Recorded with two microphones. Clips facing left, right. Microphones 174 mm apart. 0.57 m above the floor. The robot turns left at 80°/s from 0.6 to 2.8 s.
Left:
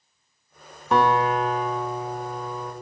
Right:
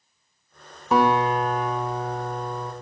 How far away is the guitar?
About 1.8 m.